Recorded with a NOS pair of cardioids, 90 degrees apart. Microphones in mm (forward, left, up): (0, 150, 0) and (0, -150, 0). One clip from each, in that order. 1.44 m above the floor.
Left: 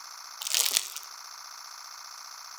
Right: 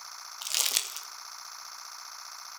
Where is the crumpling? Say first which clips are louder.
Left 1 dB; 15° left, 0.6 m.